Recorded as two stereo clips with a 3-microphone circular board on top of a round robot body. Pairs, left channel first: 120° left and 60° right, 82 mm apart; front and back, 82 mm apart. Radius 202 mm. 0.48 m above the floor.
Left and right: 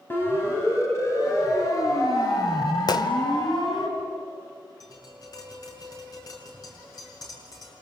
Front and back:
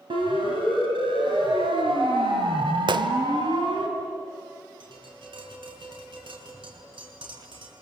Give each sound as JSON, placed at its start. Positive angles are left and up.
{"t": 0.1, "sound": "a siren", "azimuth_deg": -175, "distance_m": 4.0}
{"t": 2.9, "sound": "a gunshot", "azimuth_deg": 155, "distance_m": 1.2}
{"t": 4.8, "sound": "tapping", "azimuth_deg": 165, "distance_m": 6.5}